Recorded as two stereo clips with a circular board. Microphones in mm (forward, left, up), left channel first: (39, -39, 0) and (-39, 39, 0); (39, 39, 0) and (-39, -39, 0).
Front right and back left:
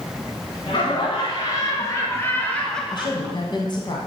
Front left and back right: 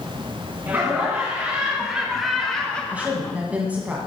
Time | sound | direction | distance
0.7 | laughter | 65° right | 2 m
2.9 | a woman speaking | 60° right | 1.4 m